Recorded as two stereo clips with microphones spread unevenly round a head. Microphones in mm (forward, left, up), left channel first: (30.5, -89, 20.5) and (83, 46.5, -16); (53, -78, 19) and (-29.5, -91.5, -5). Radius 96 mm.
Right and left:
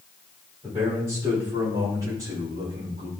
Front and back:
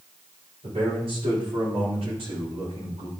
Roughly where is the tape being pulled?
No tape being pulled in this recording.